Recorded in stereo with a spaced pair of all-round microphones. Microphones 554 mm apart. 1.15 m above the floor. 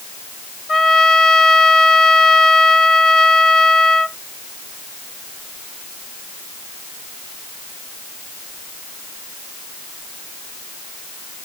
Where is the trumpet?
85° left.